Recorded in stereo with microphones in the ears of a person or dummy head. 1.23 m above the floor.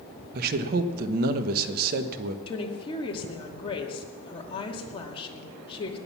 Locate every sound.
0.3 s a man speaking: 60° right (ahead or behind), 1.1 m
2.5 s a woman speaking: 25° left (ahead or behind), 2.5 m